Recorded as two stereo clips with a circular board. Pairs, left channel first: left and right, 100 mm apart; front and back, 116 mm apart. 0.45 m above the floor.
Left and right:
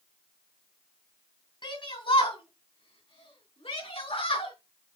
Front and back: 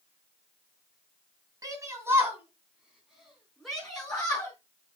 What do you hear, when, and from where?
1.6 s a shout: 125° left, 3 m; by 4.5 s 80° left, 5.5 m